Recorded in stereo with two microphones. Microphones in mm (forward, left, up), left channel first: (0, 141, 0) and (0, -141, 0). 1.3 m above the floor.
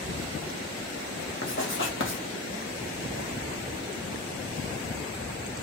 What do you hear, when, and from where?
1.4 s writing: 45° left (ahead or behind), 0.7 m